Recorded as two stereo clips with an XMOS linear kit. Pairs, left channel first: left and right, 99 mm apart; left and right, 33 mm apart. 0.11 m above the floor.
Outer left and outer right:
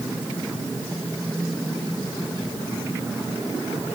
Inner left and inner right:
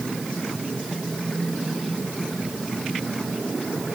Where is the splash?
I don't hear a splash.